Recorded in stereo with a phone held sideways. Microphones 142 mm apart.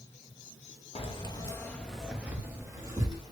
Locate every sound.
0.9 s keys jangling: 45° left (ahead or behind), 0.7 m; by 3.3 s 30° right (ahead or behind), 1.4 m